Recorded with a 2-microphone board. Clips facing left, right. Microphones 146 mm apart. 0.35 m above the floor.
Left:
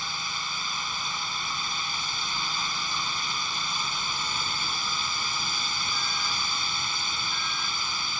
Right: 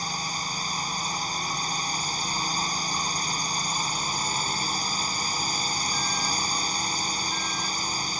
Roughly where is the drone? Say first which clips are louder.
Right 4 dB; right.